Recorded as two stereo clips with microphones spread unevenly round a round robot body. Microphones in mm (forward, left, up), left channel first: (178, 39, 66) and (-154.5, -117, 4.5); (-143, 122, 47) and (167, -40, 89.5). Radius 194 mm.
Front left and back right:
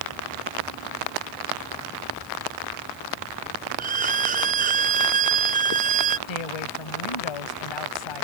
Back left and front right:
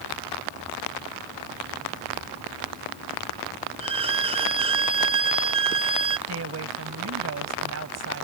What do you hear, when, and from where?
3.8 s a violin: 105° right
6.3 s a woman speaking: 20° left